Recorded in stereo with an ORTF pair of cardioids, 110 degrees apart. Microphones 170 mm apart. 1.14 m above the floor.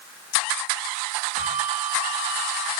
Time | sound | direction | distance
1.4 | a bell | 40° right | 6 m